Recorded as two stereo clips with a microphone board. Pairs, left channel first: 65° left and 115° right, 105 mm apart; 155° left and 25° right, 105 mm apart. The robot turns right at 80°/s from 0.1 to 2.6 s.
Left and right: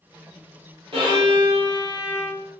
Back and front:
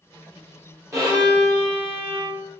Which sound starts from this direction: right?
A violin, at 0.9 s.